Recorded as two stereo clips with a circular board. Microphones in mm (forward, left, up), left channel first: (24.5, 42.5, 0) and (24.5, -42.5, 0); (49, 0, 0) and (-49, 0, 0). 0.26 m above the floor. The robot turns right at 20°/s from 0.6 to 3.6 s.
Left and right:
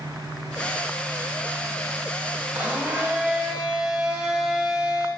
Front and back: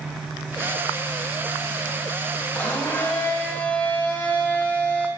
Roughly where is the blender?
Ahead right.